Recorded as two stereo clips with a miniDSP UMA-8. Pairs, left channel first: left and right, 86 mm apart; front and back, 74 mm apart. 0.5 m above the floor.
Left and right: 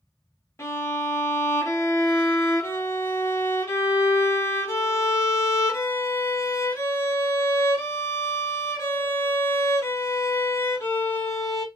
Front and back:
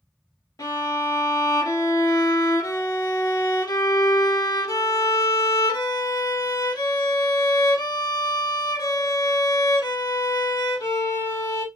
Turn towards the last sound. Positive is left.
turn(degrees=35)